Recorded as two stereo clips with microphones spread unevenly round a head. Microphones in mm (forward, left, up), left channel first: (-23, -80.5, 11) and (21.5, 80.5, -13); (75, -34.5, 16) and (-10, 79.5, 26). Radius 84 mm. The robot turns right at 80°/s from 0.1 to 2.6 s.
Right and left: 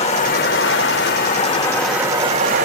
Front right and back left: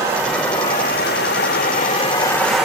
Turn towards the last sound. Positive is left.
turn(degrees=40)